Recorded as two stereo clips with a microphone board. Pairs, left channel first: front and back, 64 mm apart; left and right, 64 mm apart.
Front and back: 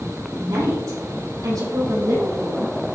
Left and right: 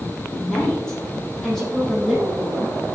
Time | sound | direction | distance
0.4 | a woman speaking | 165° left | 5 m